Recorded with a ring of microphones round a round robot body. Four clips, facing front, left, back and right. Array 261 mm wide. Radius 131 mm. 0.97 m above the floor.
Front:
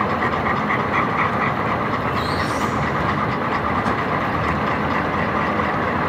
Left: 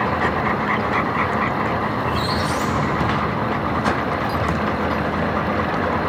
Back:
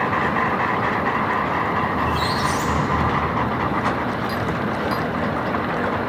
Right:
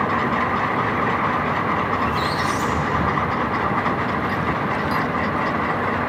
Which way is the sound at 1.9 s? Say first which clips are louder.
Even, even; 160° left.